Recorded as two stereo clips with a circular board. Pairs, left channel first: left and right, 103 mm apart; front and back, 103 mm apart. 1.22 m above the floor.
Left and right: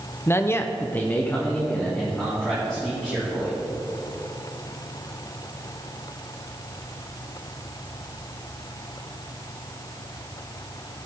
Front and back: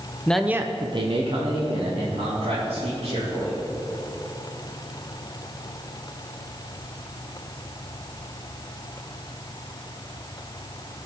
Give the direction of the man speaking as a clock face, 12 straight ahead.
10 o'clock.